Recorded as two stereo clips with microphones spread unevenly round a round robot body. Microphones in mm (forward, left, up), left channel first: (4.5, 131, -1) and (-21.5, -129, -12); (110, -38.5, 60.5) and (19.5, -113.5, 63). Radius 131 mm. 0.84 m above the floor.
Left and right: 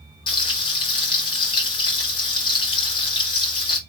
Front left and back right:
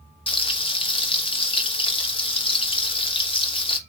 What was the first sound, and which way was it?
Frying, 15° left.